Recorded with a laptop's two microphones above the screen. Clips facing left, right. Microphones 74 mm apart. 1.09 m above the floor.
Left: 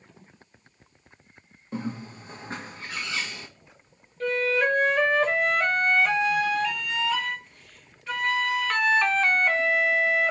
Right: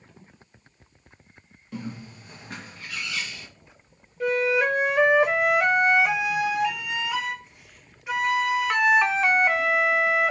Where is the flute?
15° right (ahead or behind), 0.7 m.